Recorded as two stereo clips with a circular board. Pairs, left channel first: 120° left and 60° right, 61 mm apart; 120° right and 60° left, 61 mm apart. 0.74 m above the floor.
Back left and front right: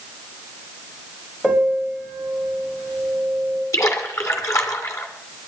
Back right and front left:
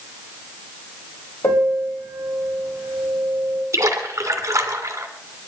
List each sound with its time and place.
1.4 s a piano: 150° right, 4 m
3.7 s a splash: 90° left, 1.8 m